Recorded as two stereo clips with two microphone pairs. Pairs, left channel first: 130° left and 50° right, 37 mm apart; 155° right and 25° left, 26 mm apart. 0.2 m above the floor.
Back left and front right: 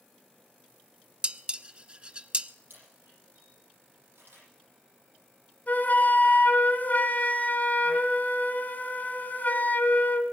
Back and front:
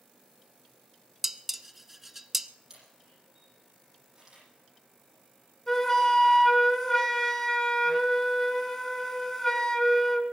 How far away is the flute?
About 1.5 m.